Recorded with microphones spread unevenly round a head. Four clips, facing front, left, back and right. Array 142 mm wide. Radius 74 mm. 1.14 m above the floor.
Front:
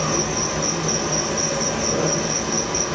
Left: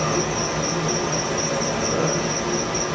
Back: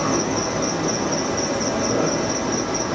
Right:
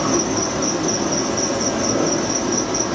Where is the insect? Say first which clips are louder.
Right 3 dB, back 2 dB; 125° right, 1.1 m.